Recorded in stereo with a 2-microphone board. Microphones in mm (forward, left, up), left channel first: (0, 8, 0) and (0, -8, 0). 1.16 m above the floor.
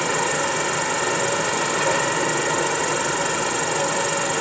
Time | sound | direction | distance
0.0 | an insect | 10° left (ahead or behind) | ?